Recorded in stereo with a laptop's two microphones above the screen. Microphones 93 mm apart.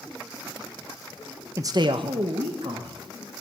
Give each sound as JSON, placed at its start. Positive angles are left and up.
{"t": 1.6, "sound": "a man speaking", "side_deg": -30, "distance_m": 0.5}